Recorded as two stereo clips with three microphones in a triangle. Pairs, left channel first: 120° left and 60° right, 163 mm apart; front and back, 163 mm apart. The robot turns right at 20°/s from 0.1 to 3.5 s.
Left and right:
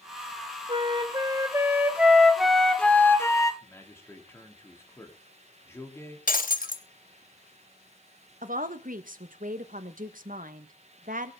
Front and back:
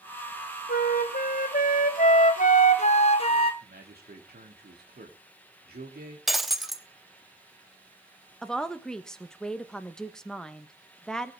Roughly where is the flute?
Ahead.